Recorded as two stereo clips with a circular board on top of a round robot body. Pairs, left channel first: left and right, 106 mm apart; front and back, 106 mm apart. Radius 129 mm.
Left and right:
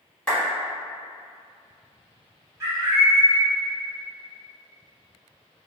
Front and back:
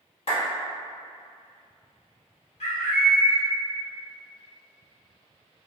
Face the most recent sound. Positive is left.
turn(degrees=-25)